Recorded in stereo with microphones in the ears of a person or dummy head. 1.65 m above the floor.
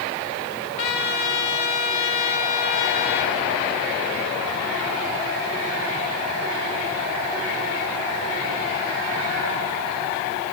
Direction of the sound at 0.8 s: 30° left (ahead or behind).